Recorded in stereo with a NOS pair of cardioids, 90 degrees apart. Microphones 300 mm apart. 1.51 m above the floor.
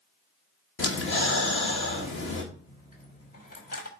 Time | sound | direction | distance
0.8 | breathing | 40° left | 2 m
2.5 | a dropped coin | 30° left | 3.5 m